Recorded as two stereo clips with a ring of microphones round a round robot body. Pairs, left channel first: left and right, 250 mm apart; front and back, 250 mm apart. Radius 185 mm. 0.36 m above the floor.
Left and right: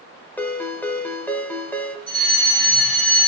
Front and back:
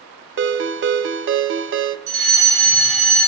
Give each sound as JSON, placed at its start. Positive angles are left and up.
{"t": 0.4, "sound": "a ringtone", "azimuth_deg": 170, "distance_m": 0.8}
{"t": 2.1, "sound": "a fire alarm", "azimuth_deg": 160, "distance_m": 4.5}